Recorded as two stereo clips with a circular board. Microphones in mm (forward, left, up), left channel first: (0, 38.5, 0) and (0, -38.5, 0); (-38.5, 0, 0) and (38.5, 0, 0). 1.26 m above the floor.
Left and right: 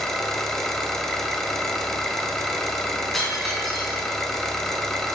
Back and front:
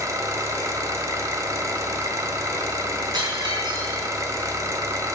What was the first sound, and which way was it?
An engine running, 10° left.